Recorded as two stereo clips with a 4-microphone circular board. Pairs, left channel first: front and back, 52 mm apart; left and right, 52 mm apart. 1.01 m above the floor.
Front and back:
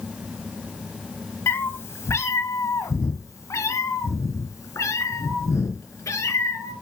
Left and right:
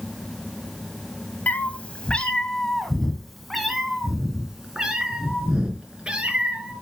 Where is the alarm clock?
No alarm clock in this recording.